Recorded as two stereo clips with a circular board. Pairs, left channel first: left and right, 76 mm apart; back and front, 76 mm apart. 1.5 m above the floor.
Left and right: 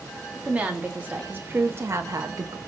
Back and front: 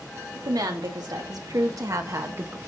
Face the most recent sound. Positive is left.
turn(degrees=-60)